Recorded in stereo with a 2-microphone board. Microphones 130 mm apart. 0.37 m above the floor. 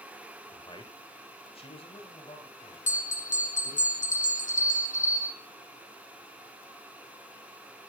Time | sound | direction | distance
0.5 | a man speaking | 35° left (ahead or behind) | 1.1 m
2.9 | a bell | 80° left | 1.3 m